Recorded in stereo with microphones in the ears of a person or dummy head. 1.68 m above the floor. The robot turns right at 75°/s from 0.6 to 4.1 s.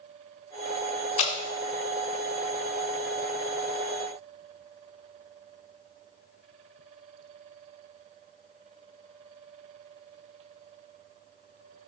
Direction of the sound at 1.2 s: 35° left (ahead or behind).